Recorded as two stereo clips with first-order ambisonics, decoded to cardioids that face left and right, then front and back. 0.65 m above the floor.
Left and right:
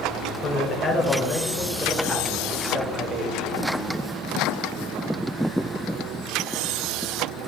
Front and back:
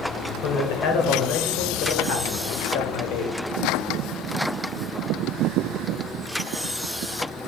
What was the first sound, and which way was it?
A man speaking, 25° left.